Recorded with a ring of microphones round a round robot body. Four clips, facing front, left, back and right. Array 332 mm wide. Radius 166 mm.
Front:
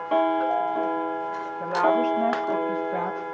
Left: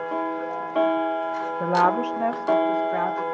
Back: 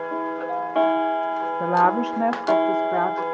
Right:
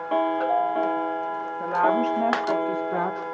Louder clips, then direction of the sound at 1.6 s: Left 1 dB, back 2 dB; 150° left.